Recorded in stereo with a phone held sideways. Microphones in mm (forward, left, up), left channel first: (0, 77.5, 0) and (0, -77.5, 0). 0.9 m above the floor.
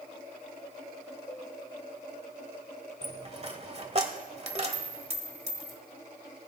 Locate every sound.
1.3 s a cowbell: 45° left (ahead or behind), 7 m
3.0 s a dropped coin: 45° right (ahead or behind), 1.3 m